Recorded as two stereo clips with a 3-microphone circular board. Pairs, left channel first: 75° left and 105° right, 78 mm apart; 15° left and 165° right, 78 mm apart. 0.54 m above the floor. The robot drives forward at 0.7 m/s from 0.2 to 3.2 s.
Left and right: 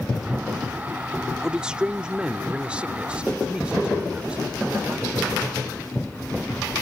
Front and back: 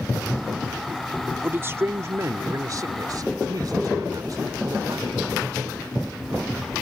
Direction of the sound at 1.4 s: 170° right.